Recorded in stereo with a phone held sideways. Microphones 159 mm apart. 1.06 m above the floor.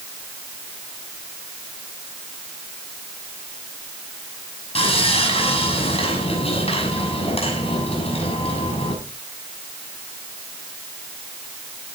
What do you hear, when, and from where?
4.8 s sawing: 35° left (ahead or behind), 6.5 m